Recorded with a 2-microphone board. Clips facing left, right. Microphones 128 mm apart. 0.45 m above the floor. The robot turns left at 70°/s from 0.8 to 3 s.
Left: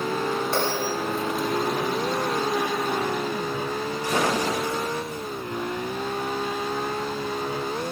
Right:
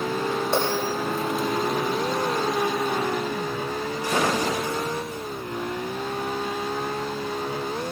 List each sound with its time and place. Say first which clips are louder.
0.5 s a bell: right 1 dB; 20° right (ahead or behind), 9 m; by 0.9 s 25° right (ahead or behind), 9 m